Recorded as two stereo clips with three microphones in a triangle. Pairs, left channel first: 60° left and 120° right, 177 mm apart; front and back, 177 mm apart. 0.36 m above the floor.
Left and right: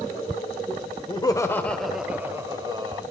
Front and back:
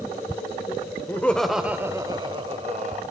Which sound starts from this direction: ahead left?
Laughter, at 1.1 s.